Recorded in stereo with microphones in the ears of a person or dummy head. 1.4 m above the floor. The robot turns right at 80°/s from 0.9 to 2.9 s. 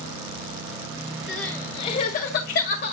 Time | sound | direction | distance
1.3 | crying | centre (ahead or behind) | 1.4 m